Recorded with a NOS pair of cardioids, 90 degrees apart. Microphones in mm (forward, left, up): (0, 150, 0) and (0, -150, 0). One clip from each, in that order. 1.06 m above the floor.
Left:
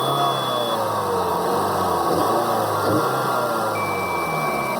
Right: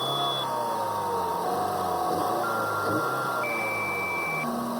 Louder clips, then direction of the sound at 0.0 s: Left 7 dB; 60° left.